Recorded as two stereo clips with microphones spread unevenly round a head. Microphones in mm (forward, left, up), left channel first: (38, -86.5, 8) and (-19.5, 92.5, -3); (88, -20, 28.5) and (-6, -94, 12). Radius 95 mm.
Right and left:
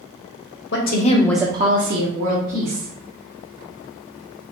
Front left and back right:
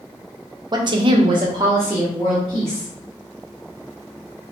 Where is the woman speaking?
85° right, 0.8 m; by 2.9 s 120° left, 1.6 m.